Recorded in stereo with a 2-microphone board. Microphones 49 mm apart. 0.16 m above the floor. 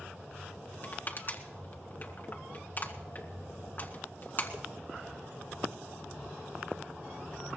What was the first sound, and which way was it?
Crushing, 40° left (ahead or behind).